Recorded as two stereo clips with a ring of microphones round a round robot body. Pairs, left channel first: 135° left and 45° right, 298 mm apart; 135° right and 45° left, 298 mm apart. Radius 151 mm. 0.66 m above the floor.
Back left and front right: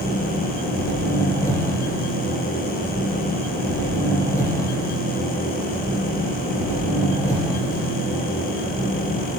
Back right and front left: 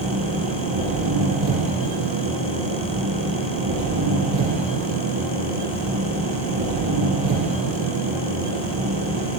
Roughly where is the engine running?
Ahead left.